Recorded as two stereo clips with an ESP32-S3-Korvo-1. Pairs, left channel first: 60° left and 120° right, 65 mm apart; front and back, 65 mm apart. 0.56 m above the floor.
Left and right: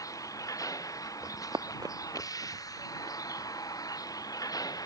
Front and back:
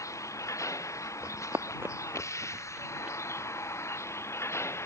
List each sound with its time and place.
0.0 s a vehicle: 35° left; by 4.9 s 45° left
1.2 s running footsteps: 140° right; by 3.2 s 105° right